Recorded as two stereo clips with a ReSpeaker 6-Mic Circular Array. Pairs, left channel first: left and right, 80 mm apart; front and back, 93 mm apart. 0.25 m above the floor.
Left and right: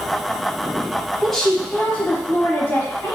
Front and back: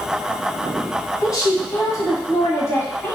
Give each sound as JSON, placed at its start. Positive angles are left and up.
{"t": 1.2, "sound": "a woman speaking", "azimuth_deg": 0, "distance_m": 1.5}